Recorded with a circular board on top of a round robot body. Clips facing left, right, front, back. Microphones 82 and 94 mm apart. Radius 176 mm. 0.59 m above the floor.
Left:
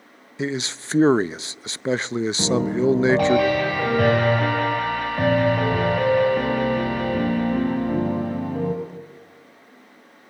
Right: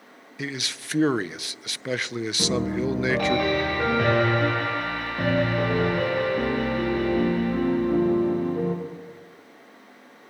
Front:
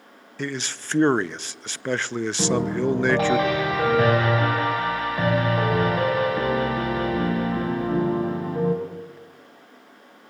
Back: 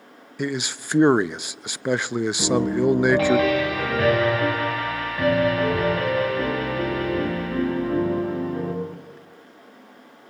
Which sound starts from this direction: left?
A man speaking, at 0.4 s.